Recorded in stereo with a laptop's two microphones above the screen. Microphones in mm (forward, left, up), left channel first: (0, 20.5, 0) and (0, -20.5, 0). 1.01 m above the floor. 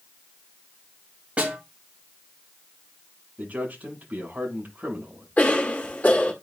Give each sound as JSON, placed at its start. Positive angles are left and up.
{"t": 1.4, "sound": "a snare drum", "side_deg": -30, "distance_m": 4.5}
{"t": 3.4, "sound": "a man speaking", "side_deg": -40, "distance_m": 7.0}
{"t": 5.4, "sound": "a cough", "side_deg": 40, "distance_m": 1.5}